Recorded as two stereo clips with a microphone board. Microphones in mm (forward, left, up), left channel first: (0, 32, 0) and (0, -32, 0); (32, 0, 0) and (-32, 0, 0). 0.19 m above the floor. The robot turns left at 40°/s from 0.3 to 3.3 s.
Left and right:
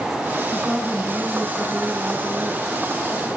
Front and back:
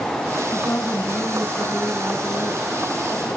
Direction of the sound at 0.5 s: 5° right.